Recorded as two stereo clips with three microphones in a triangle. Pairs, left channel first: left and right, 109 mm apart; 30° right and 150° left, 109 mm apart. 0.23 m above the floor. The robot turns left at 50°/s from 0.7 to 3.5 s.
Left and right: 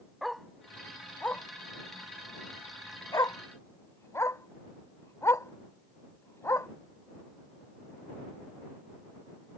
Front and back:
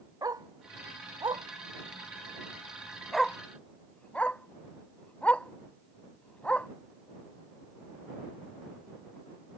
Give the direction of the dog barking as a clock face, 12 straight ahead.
6 o'clock.